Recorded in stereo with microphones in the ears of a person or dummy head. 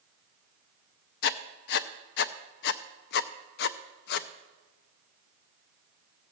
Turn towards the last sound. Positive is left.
turn(degrees=60)  # may be behind; listen again after turning